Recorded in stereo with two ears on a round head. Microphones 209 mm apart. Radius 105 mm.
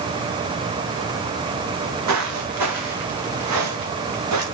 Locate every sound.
1.7 s footsteps: 75° right (ahead or behind), 3.5 m; by 4.4 s 85° right, 5 m